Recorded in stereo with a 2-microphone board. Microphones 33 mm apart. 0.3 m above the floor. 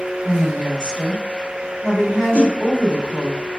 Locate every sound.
0.2 s a woman speaking: 5° left (ahead or behind), 1.5 m
2.3 s a whoosh: 55° left (ahead or behind), 0.7 m